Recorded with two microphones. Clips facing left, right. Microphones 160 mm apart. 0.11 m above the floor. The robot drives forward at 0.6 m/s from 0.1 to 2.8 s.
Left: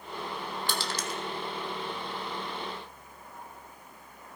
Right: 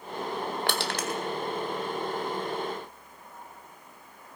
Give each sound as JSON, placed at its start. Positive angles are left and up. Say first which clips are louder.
{"t": 0.7, "sound": "crushing", "louder": "right 4 dB", "side_deg": -70, "distance_m": 1.1}